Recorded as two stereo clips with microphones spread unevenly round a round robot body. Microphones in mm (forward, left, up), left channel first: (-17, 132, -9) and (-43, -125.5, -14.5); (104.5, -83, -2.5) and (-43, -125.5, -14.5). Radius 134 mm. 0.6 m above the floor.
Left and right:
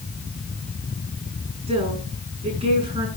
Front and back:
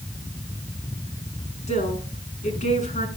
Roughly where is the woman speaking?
Ahead right.